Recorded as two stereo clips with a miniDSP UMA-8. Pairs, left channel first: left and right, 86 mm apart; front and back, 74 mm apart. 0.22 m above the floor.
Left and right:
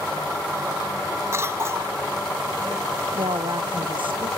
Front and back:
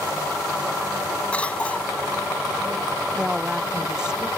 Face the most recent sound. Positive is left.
turn(degrees=-100)